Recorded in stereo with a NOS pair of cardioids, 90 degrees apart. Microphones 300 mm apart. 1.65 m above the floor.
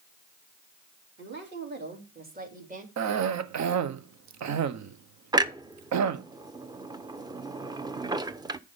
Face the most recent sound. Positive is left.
turn(degrees=-15)